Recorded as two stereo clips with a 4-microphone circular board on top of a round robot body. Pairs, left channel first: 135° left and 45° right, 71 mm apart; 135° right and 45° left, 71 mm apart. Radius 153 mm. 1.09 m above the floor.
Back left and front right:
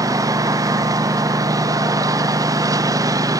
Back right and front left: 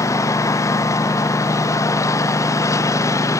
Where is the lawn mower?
90° right.